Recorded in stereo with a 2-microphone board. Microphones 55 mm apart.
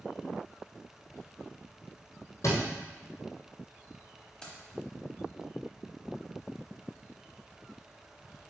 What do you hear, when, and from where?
2.4 s a thud: 65° left (ahead or behind), 1.9 m
4.4 s keys jangling: 15° left (ahead or behind), 1.1 m